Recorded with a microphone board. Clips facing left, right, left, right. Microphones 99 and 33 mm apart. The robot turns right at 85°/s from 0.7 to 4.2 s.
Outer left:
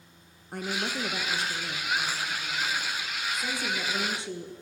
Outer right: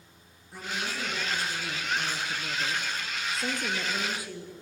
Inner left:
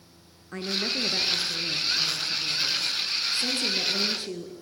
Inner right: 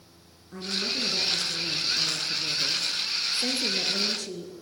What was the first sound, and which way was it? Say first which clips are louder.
A woman speaking: outer left 3 dB, inner left 1 dB; 95° left.